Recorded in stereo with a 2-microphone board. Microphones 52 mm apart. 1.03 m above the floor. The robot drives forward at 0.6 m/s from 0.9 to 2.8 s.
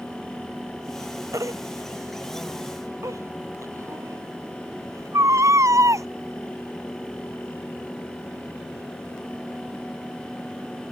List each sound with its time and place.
1.3 s a baby crying: 85° right; by 6.1 s 80° right